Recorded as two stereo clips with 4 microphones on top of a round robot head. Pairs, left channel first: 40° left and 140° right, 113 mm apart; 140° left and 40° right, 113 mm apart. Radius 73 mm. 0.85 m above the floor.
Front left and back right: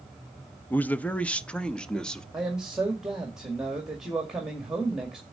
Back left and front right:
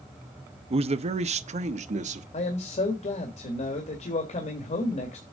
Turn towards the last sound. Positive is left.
turn(degrees=140)